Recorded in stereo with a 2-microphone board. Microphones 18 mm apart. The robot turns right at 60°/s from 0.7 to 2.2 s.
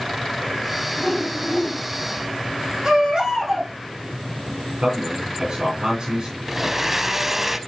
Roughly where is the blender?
Centre.